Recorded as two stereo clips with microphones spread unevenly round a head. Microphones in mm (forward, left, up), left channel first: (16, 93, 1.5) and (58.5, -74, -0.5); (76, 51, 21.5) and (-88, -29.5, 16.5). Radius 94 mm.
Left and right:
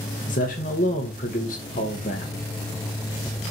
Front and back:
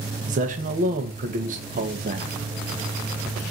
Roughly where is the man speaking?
Behind left.